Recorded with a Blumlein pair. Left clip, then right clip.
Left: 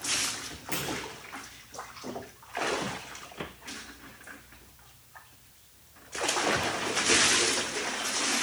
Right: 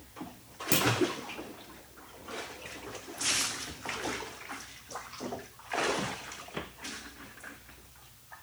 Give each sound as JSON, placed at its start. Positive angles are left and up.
{"t": 0.7, "sound": "a clunk", "azimuth_deg": -30, "distance_m": 1.0}